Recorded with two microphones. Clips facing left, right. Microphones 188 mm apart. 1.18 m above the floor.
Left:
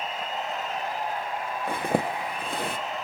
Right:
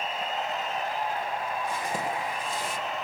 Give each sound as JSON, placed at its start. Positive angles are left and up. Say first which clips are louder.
{"t": 1.7, "sound": "a zipper", "louder": "left 5 dB", "side_deg": 60, "distance_m": 1.1}